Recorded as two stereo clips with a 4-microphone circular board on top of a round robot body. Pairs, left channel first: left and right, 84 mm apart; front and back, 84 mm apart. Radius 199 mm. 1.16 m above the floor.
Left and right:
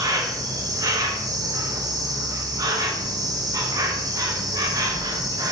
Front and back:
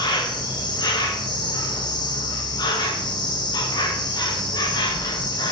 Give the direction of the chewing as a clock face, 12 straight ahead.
I don't hear chewing.